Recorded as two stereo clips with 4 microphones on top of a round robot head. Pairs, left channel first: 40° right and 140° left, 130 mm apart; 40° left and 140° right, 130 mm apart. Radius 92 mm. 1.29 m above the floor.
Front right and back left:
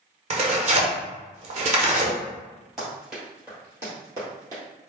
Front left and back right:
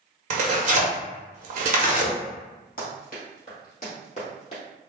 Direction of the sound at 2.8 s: 55° left.